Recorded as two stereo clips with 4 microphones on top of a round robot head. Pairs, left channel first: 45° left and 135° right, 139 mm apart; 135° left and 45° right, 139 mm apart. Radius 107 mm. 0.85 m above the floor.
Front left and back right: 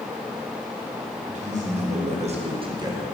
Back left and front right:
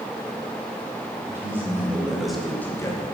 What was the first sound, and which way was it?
A man speaking, 115° right.